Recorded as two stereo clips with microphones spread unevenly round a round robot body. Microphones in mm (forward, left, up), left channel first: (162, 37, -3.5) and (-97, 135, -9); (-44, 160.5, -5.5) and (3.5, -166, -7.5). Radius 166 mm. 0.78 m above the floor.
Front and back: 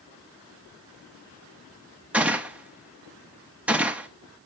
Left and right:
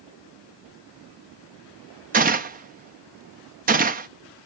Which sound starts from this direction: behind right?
A gunshot, at 2.1 s.